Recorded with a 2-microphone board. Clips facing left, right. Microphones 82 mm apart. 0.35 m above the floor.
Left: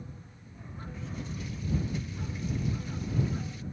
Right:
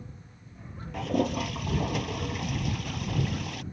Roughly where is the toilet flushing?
Right.